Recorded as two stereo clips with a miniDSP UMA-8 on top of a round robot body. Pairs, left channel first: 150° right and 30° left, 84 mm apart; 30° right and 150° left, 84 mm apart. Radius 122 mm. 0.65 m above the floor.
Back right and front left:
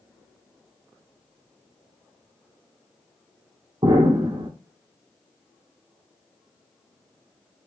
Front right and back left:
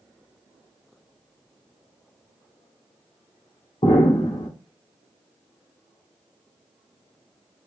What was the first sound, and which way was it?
An explosion, 5° right.